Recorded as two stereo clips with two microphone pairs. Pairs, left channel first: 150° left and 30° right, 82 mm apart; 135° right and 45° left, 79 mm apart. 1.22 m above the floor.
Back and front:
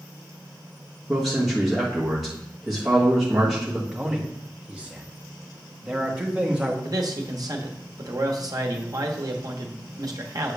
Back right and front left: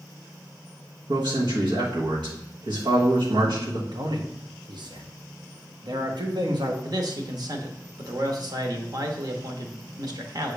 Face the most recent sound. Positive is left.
turn(degrees=10)